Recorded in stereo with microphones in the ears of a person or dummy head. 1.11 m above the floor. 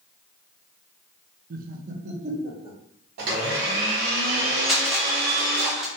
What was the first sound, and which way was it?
Laughter, 50° right (ahead or behind).